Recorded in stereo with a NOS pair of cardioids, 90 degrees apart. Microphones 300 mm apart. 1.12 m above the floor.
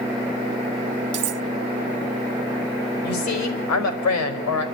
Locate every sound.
1.1 s cutlery clinking: 55° right, 0.5 m
3.0 s a woman speaking: 60° left, 4.5 m